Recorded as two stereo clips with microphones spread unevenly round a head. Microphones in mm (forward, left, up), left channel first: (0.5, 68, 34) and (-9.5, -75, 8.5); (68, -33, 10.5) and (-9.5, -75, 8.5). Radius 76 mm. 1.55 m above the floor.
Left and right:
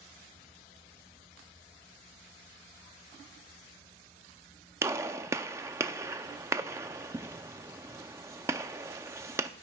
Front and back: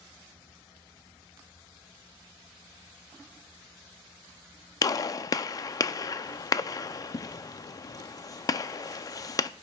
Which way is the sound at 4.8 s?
20° right.